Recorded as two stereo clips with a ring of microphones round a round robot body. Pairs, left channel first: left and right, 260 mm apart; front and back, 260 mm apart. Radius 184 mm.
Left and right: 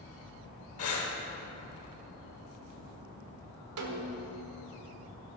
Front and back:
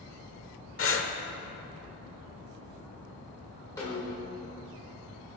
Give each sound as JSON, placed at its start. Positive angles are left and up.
{"t": 0.8, "sound": "breathing", "azimuth_deg": 40, "distance_m": 1.3}
{"t": 3.8, "sound": "a snare drum", "azimuth_deg": -80, "distance_m": 1.3}